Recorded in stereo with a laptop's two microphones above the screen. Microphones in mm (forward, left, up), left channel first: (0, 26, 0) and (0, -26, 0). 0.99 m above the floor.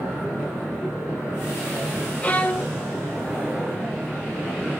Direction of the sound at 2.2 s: 25° left (ahead or behind).